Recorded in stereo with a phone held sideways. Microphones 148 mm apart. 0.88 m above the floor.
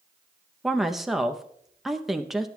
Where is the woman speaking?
Centre (ahead or behind), 0.7 m.